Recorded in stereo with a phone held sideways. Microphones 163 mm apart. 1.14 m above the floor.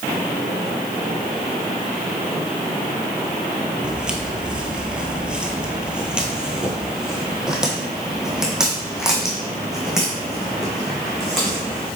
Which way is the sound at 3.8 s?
5° right (ahead or behind).